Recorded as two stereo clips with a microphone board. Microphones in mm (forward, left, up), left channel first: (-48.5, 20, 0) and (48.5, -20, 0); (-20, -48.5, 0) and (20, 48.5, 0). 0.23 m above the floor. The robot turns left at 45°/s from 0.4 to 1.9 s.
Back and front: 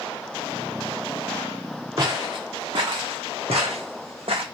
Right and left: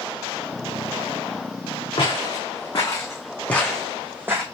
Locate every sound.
2.0 s footsteps: 75° right, 1.5 m; by 4.5 s 5° left, 0.9 m